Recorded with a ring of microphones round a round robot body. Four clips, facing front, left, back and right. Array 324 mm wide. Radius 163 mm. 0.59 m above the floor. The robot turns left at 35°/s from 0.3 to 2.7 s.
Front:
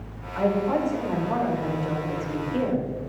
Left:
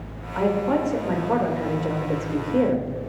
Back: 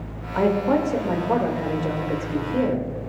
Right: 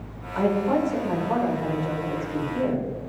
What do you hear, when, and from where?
0.3 s a woman speaking: straight behind, 2 m; by 2.9 s 100° left, 2 m